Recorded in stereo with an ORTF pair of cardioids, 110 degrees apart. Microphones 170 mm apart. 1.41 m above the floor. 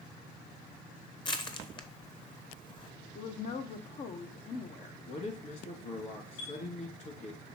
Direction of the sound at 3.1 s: 45° left.